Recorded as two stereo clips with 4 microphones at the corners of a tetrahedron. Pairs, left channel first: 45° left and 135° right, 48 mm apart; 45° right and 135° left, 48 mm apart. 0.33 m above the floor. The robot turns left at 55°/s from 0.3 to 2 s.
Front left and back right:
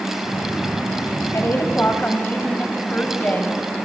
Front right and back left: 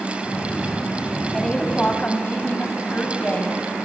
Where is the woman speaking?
40° left, 2 m; by 3.6 s 5° left, 2 m.